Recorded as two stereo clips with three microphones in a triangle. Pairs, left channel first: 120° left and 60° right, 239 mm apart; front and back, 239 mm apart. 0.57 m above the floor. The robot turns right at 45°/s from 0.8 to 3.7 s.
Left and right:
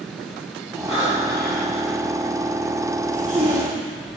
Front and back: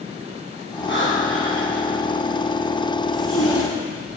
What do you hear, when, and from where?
0.9 s breathing: 40° right, 3 m; by 1.9 s 5° left, 3 m
3.0 s a zipper: 10° right, 4 m; by 4.1 s 20° left, 4 m